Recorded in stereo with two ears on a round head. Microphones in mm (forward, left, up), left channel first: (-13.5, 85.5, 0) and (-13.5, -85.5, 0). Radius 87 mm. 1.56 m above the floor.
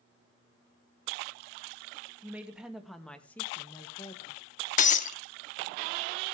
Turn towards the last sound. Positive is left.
turn(degrees=40)  # may be behind; listen again after turning